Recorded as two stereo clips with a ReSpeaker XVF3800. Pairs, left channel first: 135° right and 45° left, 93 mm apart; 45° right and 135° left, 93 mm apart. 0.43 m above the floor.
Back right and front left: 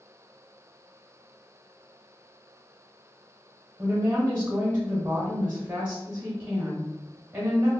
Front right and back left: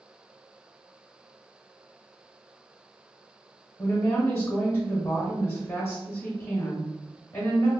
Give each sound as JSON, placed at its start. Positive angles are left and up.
{"t": 3.8, "sound": "a woman speaking", "azimuth_deg": -10, "distance_m": 1.0}